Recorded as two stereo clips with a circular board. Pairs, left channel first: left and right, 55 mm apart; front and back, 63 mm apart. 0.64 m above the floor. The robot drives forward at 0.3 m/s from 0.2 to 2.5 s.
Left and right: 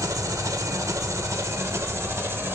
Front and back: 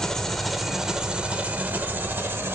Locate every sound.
0.0 s an engine running: 85° right, 0.7 m; by 2.5 s 130° right, 0.9 m